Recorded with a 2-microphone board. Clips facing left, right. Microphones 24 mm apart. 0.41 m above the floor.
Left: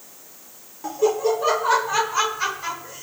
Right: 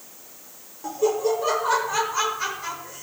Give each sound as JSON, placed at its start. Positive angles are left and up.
{"t": 0.8, "sound": "laughter", "side_deg": 15, "distance_m": 1.0}